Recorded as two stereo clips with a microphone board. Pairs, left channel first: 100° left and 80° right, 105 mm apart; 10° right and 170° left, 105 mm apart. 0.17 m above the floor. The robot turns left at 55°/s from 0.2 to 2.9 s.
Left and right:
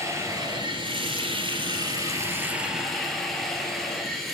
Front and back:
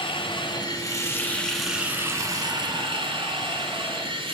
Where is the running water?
25° right, 1.6 m; by 4.3 s 170° right, 1.6 m.